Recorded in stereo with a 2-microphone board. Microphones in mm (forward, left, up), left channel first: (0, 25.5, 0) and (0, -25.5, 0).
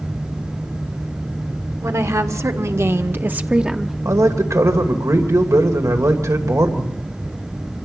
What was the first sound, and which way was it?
A woman speaking, 70° right (ahead or behind).